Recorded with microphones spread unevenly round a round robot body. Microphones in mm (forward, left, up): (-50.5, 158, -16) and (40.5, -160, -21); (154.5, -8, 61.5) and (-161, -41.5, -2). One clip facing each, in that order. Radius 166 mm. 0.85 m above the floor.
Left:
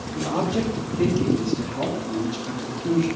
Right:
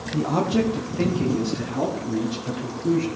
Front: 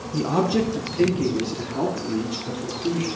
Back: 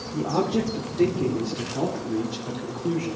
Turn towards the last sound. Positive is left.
turn(degrees=-60)